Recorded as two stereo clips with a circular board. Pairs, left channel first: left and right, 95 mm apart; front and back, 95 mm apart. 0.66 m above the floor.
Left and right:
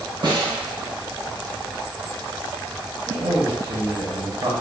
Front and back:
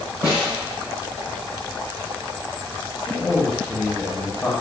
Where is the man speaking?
85° right, 0.8 m.